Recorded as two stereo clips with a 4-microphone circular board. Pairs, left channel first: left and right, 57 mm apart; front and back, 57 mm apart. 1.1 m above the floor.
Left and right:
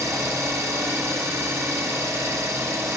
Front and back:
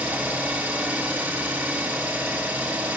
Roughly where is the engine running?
Behind right.